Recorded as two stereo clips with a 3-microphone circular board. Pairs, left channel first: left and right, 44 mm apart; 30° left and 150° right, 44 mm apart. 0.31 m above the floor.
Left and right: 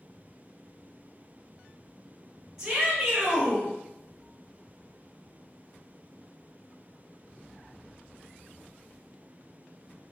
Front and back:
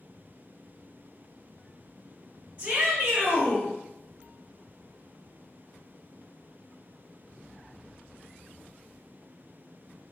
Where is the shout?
150° right, 1.2 m.